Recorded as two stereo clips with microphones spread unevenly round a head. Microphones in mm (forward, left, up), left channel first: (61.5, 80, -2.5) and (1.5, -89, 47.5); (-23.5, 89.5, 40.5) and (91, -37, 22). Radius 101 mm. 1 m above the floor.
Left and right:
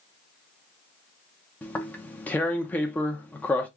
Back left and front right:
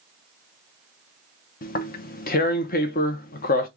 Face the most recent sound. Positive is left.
turn(degrees=135)